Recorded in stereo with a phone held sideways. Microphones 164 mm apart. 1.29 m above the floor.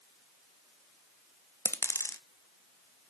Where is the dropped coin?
15° left (ahead or behind), 0.7 m.